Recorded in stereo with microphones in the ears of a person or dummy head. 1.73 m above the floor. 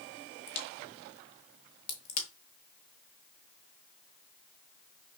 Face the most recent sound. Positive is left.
turn(degrees=50)  # may be behind; listen again after turning